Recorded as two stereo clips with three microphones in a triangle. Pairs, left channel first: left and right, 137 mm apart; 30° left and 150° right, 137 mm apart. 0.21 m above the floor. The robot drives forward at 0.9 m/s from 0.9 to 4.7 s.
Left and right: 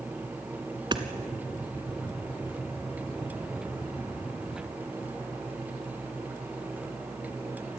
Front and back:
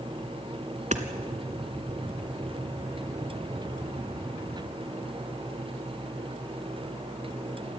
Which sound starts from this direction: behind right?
Hammering, at 0.9 s.